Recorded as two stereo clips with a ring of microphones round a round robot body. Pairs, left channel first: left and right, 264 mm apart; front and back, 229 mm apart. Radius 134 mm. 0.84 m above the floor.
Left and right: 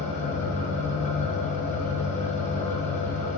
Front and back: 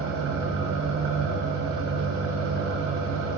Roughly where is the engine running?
Behind left.